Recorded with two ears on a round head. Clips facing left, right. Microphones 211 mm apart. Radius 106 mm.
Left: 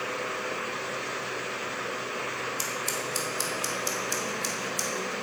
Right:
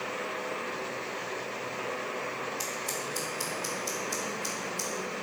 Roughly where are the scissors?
Left.